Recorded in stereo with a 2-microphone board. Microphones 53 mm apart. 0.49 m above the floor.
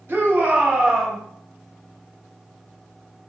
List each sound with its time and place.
0.1 s a shout: 40° right (ahead or behind), 1.1 m; by 1.2 s 5° left (ahead or behind), 1.0 m